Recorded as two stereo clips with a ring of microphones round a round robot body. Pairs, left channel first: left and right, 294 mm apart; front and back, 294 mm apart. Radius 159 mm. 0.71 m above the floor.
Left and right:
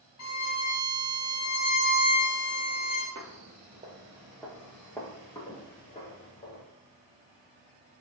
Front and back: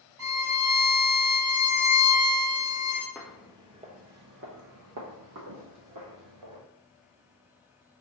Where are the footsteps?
85° right, 0.8 m; by 6.6 s 155° left, 1.8 m.